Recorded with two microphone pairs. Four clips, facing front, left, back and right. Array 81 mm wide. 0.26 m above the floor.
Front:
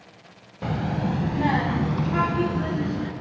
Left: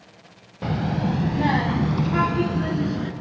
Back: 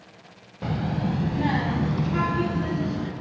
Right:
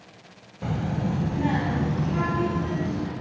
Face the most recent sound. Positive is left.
turn(degrees=50)